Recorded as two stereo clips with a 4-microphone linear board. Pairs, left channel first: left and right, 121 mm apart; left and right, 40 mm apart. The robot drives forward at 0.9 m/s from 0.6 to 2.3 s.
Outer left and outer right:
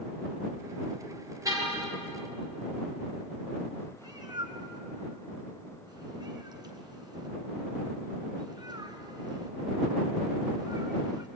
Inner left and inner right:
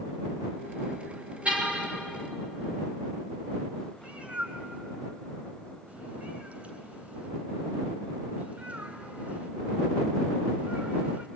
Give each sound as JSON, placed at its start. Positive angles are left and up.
{"t": 1.4, "sound": "a car horn", "side_deg": -30, "distance_m": 4.5}
{"t": 4.0, "sound": "a cat meowing", "side_deg": -35, "distance_m": 3.0}